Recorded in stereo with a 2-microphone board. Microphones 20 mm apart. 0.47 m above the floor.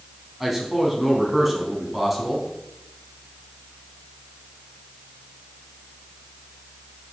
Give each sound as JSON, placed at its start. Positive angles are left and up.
{"t": 0.4, "sound": "a man speaking", "side_deg": -15, "distance_m": 3.5}